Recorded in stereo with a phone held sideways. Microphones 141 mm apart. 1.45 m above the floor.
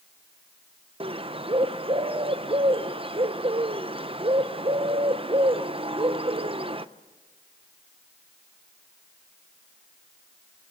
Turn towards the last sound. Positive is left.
turn(degrees=-40)  # may be behind; listen again after turning